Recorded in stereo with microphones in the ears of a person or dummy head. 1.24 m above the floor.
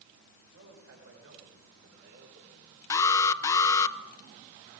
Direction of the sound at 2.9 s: 20° left (ahead or behind).